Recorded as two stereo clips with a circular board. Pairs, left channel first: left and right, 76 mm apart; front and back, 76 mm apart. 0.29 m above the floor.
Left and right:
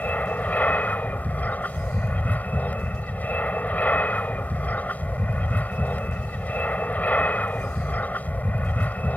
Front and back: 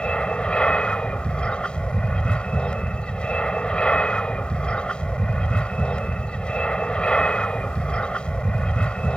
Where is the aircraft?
55° left.